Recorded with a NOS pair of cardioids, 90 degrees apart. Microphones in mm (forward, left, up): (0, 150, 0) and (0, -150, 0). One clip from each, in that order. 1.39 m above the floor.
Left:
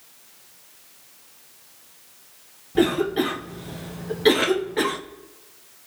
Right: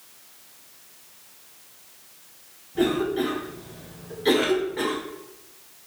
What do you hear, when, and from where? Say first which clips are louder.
2.8 s a cough: left 3 dB; 50° left, 0.6 m